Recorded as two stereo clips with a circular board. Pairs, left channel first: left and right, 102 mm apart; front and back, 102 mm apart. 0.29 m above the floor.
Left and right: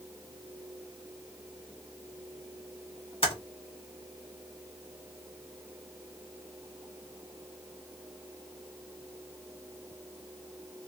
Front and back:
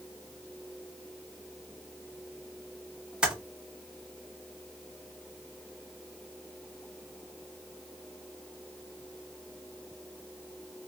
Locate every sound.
3.2 s typing on a keyboard: 100° left, 1.7 m